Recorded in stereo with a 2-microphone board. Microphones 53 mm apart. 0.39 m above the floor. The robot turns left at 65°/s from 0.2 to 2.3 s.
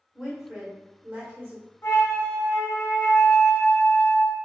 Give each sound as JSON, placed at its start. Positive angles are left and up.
{"t": 0.1, "sound": "a woman speaking", "azimuth_deg": -5, "distance_m": 0.9}
{"t": 1.8, "sound": "a flute", "azimuth_deg": 55, "distance_m": 0.7}